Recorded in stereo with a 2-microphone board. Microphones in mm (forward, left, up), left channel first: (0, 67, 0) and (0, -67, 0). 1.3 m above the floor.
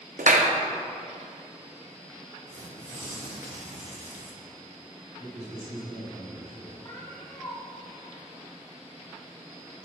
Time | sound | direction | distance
0.2 | a clap | 75° right (ahead or behind) | 0.7 m
2.5 | tearing paper | 60° right (ahead or behind) | 1.4 m
5.2 | a man speaking | 80° right | 3 m
6.8 | a cat meowing | 20° left (ahead or behind) | 3.5 m